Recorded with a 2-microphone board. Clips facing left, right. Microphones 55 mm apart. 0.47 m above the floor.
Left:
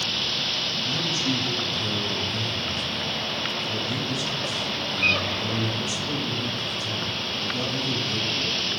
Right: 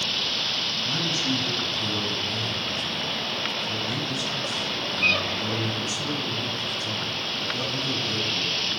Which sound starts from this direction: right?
A man speaking, at 0.8 s.